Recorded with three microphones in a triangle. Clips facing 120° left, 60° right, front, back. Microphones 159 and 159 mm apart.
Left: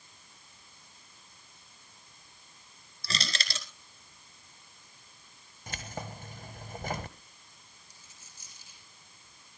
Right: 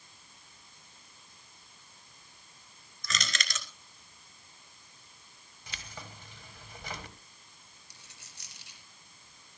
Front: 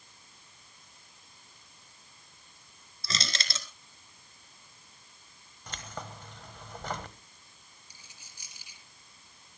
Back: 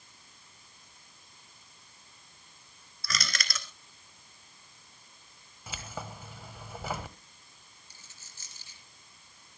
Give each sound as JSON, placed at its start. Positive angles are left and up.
{"t": 3.0, "sound": "crushing", "azimuth_deg": 65, "distance_m": 2.0}
{"t": 5.7, "sound": "keys jangling", "azimuth_deg": 100, "distance_m": 1.4}
{"t": 7.9, "sound": "a dropped coin", "azimuth_deg": -75, "distance_m": 3.0}